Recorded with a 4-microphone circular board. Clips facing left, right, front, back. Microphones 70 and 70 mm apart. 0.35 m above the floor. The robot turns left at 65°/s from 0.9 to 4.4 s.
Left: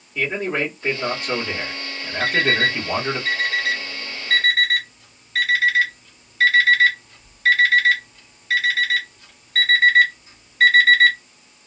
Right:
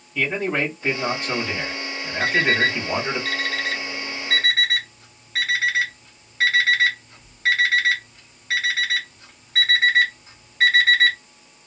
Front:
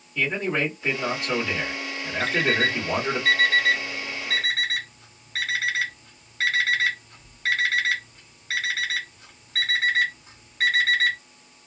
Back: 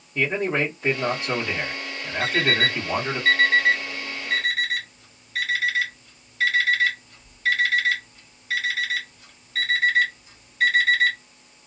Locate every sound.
0.1 s a man speaking: 165° left, 1.7 m; by 3.2 s 20° left, 1.7 m
2.2 s an alarm clock: 105° left, 1.9 m; by 11.2 s 40° right, 1.9 m